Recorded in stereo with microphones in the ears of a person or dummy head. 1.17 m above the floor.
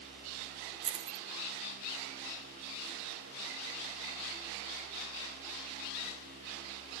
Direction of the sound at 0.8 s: 30° right (ahead or behind).